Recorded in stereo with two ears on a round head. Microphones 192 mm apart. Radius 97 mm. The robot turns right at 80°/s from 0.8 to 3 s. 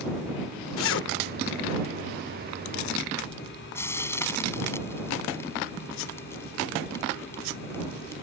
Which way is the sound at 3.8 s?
10° left (ahead or behind).